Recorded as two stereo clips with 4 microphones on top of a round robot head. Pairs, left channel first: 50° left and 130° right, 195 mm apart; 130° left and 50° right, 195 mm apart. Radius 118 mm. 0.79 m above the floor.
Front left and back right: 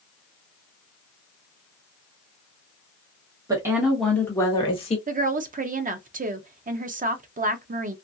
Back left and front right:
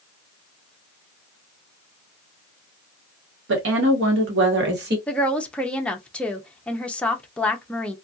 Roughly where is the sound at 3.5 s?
Ahead right.